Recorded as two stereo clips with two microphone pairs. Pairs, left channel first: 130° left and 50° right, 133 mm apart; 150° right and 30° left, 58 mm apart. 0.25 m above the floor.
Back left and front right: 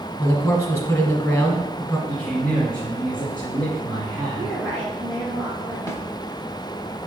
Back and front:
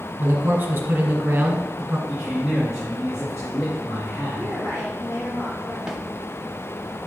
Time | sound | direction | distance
0.2 | a man speaking | 75° left | 1.4 m
2.1 | a man speaking | 145° right | 2 m
4.4 | a woman speaking | 135° right | 2.5 m
5.9 | a snare drum | 100° left | 0.8 m